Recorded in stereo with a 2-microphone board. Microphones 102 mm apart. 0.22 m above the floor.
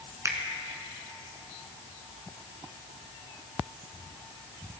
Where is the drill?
No drill in this recording.